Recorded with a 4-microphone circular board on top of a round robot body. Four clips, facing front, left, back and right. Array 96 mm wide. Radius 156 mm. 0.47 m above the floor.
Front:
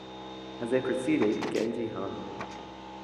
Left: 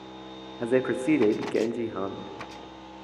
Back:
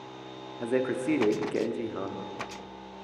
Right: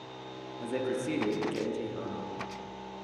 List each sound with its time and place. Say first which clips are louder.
0.6 s a man speaking: left 8 dB, even; 90° left, 1.1 m